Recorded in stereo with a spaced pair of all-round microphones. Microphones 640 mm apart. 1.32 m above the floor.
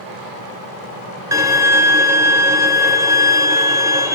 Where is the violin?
5° right (ahead or behind), 0.6 m.